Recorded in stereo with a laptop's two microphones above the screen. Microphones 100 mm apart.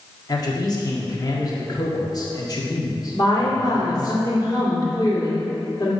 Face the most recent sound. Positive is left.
turn(degrees=45)  # may be behind; listen again after turning